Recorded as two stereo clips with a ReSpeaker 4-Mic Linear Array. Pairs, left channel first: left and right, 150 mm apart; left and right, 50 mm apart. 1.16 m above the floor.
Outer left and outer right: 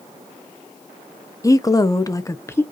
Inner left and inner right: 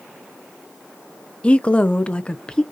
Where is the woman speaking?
20° left (ahead or behind), 0.7 m; by 2.6 s 15° left (ahead or behind), 0.5 m.